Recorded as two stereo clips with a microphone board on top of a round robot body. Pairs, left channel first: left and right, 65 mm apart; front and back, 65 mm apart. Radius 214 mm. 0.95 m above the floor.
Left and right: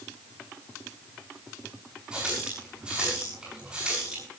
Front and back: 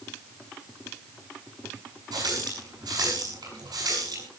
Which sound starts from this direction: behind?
A running tap, at 2.1 s.